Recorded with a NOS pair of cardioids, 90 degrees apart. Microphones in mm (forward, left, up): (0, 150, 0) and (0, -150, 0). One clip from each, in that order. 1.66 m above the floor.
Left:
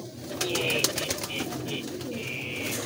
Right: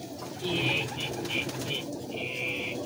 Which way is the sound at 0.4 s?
20° right.